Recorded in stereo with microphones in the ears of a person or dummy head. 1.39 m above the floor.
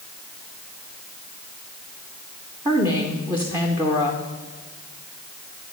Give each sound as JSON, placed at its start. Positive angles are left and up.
{"t": 2.6, "sound": "a woman speaking", "side_deg": -10, "distance_m": 0.5}